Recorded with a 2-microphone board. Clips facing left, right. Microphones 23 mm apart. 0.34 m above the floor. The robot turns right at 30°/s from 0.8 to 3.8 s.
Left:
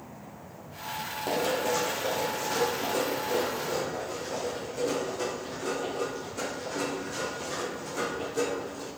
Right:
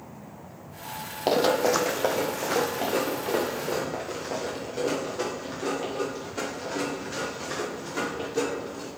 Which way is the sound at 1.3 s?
55° right (ahead or behind).